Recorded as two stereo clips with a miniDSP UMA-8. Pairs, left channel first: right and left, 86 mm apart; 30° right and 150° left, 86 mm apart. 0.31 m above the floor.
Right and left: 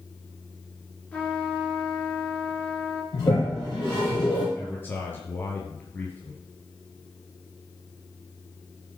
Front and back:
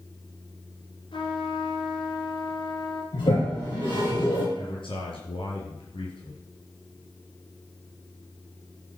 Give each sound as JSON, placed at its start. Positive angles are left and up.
{"t": 1.1, "sound": "a trumpet", "azimuth_deg": -20, "distance_m": 2.5}
{"t": 3.1, "sound": "a toilet flushing", "azimuth_deg": -50, "distance_m": 6.0}
{"t": 4.5, "sound": "a man speaking", "azimuth_deg": -25, "distance_m": 5.0}